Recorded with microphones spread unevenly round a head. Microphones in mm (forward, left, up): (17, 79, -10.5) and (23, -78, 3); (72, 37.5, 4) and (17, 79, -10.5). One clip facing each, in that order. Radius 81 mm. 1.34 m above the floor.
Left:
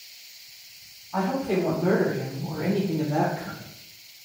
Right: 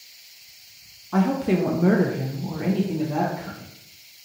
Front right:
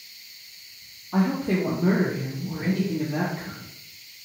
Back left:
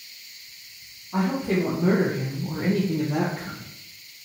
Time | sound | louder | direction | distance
1.1 | a woman speaking | right 4 dB, even | 90° right | 0.7 m